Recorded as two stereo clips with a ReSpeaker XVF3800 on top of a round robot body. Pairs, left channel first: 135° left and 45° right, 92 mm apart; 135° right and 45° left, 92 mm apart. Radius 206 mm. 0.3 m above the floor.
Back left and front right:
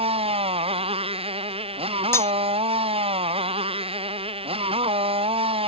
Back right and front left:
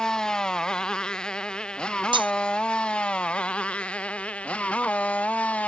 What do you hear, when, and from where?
0.0 s a motorcycle: 50° right; by 5.7 s 60° right
2.1 s cutlery clinking: 75° left